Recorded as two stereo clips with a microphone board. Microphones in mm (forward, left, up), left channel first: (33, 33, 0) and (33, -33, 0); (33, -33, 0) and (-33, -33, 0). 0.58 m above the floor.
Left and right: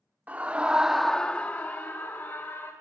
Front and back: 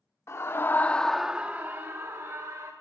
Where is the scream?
30° right, 1.1 m; by 2.7 s 145° left, 1.8 m.